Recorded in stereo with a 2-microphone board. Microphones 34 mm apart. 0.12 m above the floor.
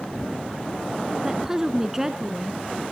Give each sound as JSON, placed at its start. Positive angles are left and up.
{"t": 1.2, "sound": "a woman speaking", "side_deg": -15, "distance_m": 1.1}